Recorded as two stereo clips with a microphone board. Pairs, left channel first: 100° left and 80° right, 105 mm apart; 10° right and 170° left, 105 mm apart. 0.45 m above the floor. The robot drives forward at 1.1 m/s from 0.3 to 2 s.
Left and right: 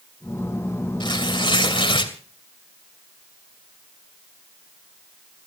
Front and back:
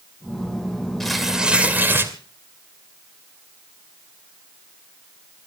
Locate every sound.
1.0 s tearing paper: 75° left, 2.5 m; by 2.1 s 105° left, 2.5 m